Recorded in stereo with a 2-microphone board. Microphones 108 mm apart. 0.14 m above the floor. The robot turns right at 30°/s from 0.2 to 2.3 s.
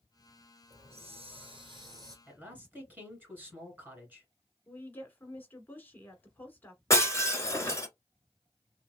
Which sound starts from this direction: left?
Breaking glass, at 6.9 s.